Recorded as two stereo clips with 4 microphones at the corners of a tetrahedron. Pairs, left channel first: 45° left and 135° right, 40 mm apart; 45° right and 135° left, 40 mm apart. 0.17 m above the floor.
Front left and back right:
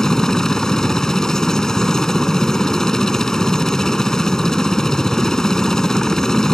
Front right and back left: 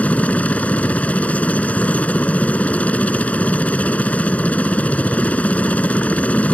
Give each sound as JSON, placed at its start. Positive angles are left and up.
{"t": 0.0, "sound": "a helicopter", "azimuth_deg": -25}